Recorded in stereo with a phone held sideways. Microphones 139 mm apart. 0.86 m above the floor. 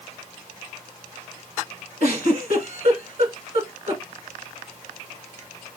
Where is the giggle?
55° right (ahead or behind), 1.9 m.